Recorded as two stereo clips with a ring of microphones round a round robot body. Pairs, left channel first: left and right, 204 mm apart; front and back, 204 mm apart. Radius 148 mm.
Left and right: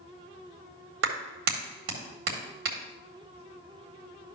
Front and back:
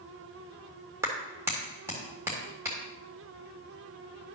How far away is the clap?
About 1.8 m.